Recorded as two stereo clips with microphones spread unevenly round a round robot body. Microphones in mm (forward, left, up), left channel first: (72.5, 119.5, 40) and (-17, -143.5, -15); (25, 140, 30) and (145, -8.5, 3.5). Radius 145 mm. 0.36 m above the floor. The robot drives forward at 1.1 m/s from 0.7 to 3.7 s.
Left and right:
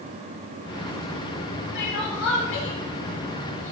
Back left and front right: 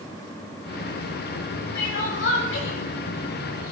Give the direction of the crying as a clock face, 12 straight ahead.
8 o'clock.